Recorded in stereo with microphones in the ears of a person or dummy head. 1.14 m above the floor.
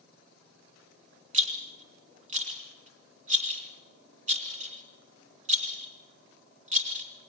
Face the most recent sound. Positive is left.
turn(degrees=-35)  # may be behind; listen again after turning